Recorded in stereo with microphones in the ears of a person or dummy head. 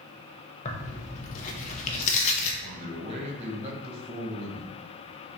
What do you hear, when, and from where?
0.7 s tearing paper: 40° left (ahead or behind), 0.8 m
2.6 s a man speaking: 35° right (ahead or behind), 1.4 m